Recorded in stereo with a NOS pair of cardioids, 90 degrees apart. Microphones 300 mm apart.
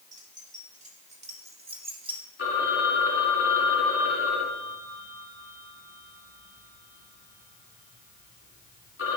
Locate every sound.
0.1 s keys jangling: 25° right, 3 m; by 2.2 s 15° right, 1.9 m
2.4 s a phone ringing: 45° left, 3 m